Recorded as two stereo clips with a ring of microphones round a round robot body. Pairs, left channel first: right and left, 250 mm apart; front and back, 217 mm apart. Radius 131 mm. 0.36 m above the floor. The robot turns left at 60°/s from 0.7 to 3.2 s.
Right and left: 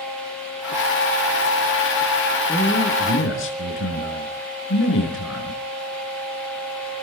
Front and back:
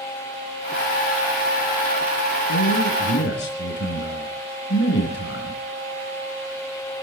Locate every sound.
2.5 s a man speaking: 5° right, 4.5 m; by 5.6 s 50° right, 4.5 m